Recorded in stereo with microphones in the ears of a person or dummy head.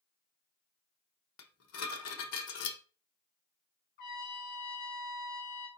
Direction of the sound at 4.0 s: 50° left (ahead or behind).